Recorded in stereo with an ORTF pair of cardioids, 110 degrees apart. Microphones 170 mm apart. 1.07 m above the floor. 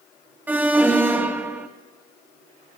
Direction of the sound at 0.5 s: 10° right.